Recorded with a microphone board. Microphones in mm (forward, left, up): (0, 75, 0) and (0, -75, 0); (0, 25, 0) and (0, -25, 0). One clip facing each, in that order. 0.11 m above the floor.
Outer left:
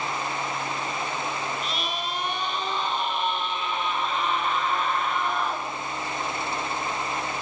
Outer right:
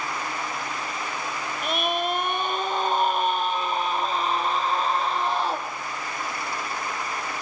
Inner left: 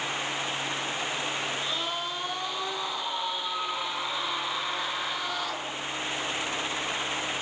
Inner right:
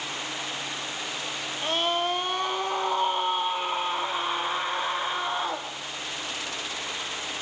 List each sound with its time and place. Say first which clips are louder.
1.6 s a scream: outer right 6 dB, inner right 6 dB; 55° right (ahead or behind), 2.5 m; by 5.7 s 30° right (ahead or behind), 4.5 m